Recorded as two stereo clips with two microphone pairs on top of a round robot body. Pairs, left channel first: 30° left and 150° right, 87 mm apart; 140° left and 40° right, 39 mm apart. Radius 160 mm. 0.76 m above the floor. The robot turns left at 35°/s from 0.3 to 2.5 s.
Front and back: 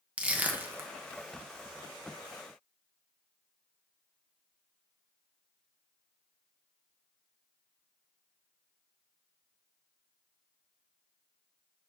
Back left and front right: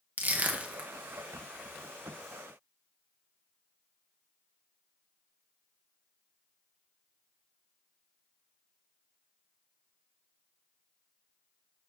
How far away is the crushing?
About 1.2 m.